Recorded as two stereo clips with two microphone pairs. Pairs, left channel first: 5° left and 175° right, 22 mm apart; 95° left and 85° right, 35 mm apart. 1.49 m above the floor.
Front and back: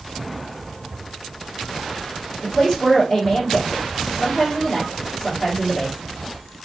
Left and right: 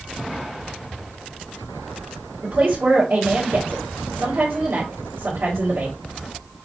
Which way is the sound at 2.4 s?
70° right.